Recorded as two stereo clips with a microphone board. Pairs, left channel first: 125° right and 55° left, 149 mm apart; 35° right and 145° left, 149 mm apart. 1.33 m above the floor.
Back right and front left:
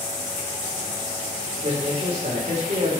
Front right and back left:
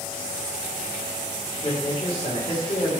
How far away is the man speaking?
About 4.5 m.